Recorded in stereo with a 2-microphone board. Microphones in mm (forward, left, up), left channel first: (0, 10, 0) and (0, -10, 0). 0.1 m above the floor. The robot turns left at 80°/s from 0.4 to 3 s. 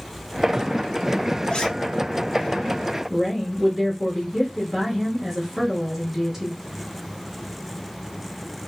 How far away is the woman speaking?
About 1.8 m.